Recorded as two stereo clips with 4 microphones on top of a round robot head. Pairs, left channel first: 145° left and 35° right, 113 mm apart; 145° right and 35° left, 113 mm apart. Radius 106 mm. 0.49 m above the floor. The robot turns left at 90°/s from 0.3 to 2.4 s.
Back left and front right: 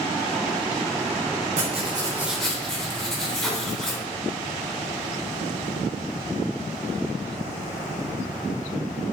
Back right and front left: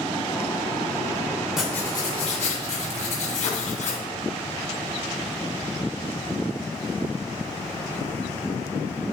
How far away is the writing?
About 2.5 m.